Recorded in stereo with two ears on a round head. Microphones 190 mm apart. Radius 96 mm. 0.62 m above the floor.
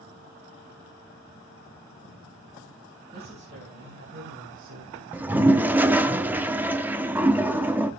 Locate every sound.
3.1 s a woman speaking: 30° right (ahead or behind), 3.5 m; by 5.0 s 70° right (ahead or behind), 1.8 m
5.1 s a toilet flushing: 10° right (ahead or behind), 0.7 m